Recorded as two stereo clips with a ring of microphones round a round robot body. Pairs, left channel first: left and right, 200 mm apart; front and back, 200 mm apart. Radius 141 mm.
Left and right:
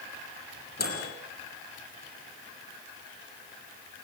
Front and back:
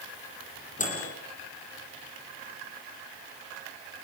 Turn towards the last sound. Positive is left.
turn(degrees=50)